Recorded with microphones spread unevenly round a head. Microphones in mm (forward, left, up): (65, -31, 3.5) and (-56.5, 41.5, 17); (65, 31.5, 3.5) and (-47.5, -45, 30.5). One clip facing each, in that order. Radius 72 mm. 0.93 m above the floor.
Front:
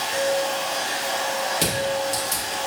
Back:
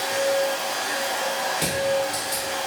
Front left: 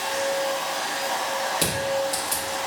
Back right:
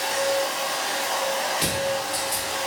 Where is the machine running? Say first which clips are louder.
Back 1 dB, back right 1 dB; 160° left, 1.1 m.